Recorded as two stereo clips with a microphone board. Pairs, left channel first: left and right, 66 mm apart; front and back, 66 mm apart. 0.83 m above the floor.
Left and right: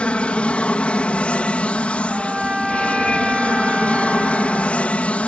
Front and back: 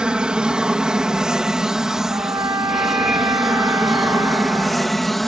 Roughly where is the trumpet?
Behind.